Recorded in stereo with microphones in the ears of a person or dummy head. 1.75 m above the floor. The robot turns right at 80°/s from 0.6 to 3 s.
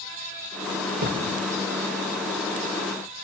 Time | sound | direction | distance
1.0 | a thud | 65° right (ahead or behind) | 3 m